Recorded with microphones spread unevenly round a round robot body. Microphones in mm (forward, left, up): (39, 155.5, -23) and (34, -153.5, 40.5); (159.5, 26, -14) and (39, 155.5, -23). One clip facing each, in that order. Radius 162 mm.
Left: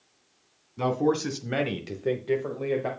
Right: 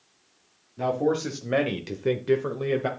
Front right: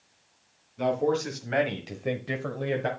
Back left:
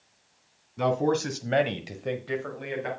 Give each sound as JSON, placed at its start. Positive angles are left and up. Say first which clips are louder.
{"t": 0.8, "sound": "a man speaking", "louder": "even, back left 1 dB", "azimuth_deg": 150, "distance_m": 1.9}